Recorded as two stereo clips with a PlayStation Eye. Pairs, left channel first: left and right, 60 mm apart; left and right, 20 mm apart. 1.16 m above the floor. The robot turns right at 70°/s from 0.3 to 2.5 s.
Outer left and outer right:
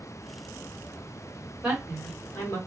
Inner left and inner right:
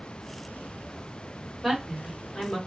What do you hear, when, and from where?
1.6 s a woman speaking: 10° right (ahead or behind), 1.6 m; by 2.6 s 50° left (ahead or behind), 1.6 m